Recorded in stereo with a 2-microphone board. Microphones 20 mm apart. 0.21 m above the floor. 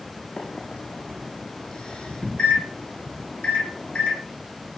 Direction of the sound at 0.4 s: 60° left (ahead or behind).